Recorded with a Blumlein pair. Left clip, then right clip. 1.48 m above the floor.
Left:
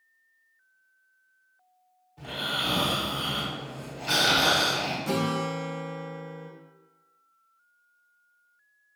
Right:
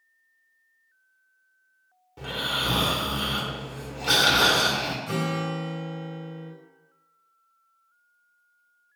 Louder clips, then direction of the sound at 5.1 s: Left 1 dB; 45° left.